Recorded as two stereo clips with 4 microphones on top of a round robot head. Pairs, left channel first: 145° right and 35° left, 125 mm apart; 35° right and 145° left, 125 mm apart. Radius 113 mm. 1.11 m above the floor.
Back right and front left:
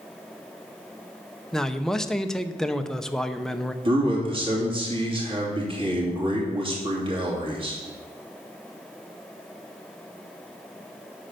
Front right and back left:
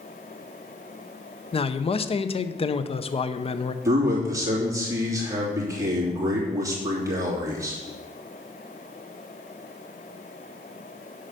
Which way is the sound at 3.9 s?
80° left.